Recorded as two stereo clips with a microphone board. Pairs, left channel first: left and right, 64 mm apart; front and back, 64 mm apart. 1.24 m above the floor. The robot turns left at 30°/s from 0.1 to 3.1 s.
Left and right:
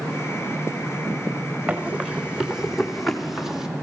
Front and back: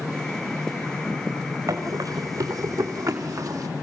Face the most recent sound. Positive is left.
turn(degrees=-170)